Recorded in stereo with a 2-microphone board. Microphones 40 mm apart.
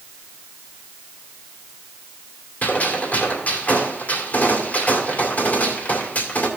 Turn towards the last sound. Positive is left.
turn(degrees=45)  # may be behind; listen again after turning